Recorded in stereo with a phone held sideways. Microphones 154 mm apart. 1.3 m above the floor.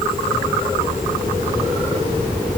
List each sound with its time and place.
Only background noise.